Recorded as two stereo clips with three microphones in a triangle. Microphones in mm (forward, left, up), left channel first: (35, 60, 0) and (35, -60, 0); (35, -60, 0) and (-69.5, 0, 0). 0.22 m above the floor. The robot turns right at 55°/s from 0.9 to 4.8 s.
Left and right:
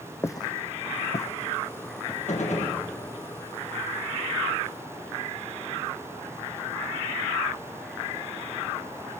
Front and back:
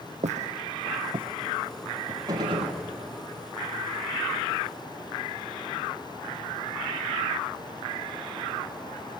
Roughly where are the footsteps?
Behind left.